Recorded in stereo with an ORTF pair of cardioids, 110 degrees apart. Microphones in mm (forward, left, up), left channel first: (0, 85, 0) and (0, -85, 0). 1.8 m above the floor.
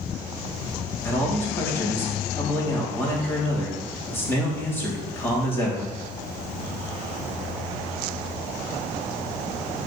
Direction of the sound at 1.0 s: 15° left.